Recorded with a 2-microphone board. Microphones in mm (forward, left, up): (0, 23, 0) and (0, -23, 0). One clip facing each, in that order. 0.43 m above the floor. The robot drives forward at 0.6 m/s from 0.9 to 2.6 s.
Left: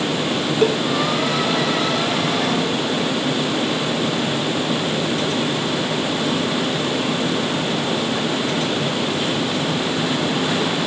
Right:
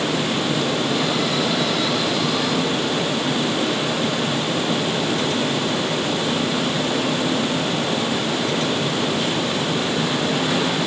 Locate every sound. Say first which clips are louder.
0.6 s a cowbell: left 6 dB; 55° left (ahead or behind)